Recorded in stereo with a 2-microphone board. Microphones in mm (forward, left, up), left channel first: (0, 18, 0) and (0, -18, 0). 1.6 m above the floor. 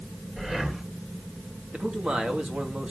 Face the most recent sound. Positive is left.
turn(degrees=-35)  # may be behind; listen again after turning